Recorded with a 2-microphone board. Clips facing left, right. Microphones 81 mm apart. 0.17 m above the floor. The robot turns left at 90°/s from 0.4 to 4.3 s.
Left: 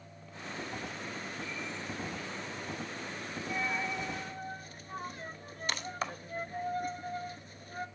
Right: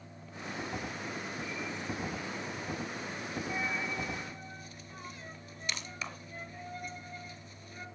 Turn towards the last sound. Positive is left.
turn(degrees=45)  # may be behind; listen again after turning